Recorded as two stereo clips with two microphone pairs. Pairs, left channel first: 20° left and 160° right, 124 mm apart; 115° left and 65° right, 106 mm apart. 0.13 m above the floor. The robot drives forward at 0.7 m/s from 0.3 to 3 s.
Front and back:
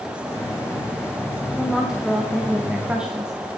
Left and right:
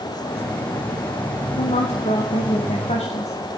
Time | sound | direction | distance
1.6 | a woman speaking | 115° left | 9.5 m